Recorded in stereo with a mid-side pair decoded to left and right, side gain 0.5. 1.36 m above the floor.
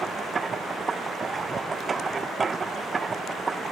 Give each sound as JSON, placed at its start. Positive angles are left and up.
{"t": 0.0, "sound": "a machine running", "azimuth_deg": -35}